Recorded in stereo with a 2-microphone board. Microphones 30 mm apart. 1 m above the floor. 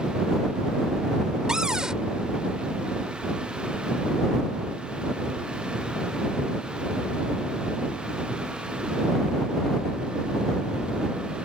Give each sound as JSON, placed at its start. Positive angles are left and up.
{"t": 1.5, "sound": "a cupboard door", "side_deg": -25}